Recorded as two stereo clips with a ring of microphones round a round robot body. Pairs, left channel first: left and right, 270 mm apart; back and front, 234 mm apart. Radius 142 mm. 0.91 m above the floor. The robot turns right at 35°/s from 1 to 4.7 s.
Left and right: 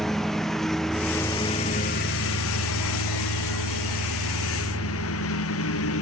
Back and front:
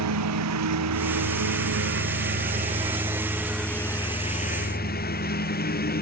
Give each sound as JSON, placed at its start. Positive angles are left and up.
{"t": 0.0, "sound": "a lawn mower", "azimuth_deg": 0}